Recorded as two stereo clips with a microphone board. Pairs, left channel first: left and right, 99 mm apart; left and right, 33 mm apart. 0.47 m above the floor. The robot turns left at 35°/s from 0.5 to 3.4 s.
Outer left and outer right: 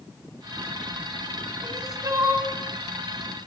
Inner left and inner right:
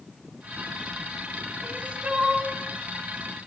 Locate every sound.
1.6 s crying: 130° right, 2 m; by 2.5 s 160° right, 2 m